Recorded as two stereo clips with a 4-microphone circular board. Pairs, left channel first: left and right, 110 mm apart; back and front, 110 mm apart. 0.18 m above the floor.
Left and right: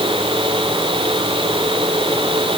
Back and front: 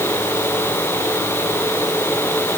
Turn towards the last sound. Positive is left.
No sound to turn to.